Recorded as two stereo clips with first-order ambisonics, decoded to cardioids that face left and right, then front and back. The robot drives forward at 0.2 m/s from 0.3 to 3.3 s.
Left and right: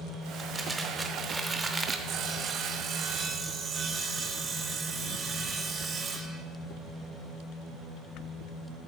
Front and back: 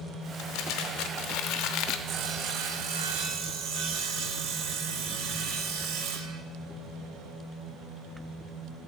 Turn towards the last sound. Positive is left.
turn(degrees=-150)